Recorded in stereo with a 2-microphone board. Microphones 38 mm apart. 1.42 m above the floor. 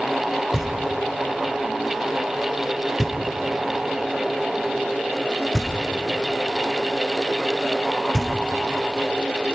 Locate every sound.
0.5 s knocking: 5° left (ahead or behind), 1.7 m